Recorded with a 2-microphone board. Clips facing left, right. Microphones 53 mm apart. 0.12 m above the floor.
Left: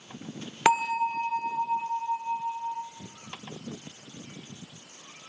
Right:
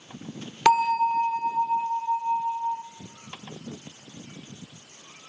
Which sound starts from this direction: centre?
A bell, at 0.7 s.